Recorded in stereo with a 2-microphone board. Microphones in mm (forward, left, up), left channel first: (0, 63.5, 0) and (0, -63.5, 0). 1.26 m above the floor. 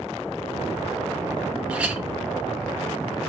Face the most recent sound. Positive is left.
turn(degrees=-10)  # may be behind; listen again after turning